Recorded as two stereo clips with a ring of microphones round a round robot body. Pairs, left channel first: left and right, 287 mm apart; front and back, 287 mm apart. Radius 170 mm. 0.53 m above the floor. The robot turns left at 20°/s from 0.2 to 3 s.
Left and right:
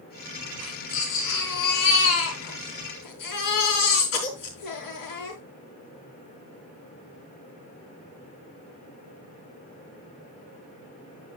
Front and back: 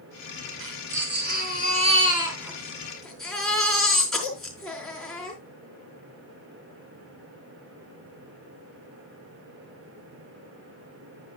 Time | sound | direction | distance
0.6 | a baby crying | 135° left | 4.5 m